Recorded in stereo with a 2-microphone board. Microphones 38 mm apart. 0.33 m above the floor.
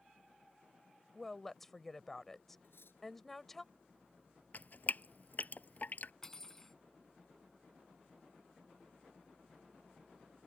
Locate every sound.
1.1 s a woman speaking: 10° left (ahead or behind)
2.6 s cutlery clinking: 80° left
4.5 s dripping: 50° left (ahead or behind)
6.2 s cutlery clinking: 15° left (ahead or behind)